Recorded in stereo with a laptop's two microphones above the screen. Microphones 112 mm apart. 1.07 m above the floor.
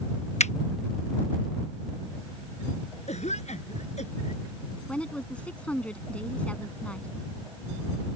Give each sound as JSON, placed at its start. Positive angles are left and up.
{"t": 0.4, "sound": "a finger snap", "side_deg": 80}
{"t": 3.1, "sound": "a cough", "side_deg": 85}
{"t": 4.9, "sound": "a woman speaking", "side_deg": 10}